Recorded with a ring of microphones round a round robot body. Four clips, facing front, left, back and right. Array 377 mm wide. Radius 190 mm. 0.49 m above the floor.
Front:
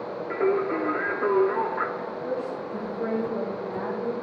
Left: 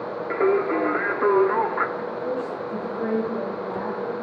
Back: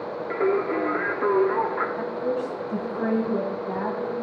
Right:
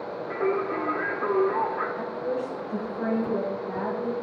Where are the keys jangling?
I don't hear keys jangling.